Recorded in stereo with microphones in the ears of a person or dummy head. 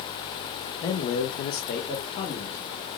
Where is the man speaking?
20° left (ahead or behind), 0.7 m; by 2.8 s 30° left (ahead or behind), 1.6 m.